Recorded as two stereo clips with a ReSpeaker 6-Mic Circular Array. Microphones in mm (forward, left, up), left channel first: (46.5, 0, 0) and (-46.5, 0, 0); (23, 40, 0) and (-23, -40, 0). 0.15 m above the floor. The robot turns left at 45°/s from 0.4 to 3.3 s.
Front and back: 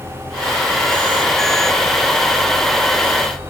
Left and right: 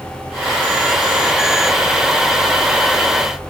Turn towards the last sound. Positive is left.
No sound to turn to.